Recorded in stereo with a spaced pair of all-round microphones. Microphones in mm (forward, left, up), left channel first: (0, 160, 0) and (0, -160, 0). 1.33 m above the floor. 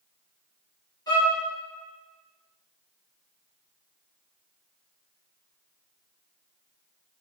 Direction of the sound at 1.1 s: 10° left (ahead or behind).